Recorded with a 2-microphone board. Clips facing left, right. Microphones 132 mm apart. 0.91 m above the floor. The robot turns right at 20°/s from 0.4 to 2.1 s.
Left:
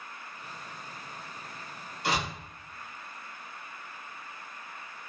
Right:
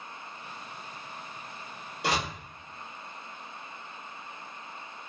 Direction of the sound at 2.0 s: 80° right.